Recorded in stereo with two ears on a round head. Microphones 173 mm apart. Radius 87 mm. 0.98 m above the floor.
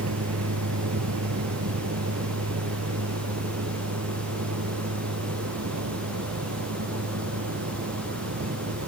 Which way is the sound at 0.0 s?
85° right.